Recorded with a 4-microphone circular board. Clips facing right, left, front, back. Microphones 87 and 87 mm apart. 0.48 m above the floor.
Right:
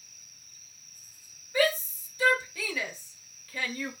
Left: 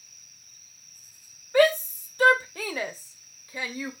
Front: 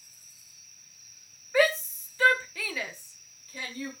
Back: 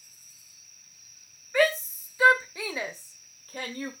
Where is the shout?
85° left, 2.0 m; by 3.9 s 170° left, 1.6 m.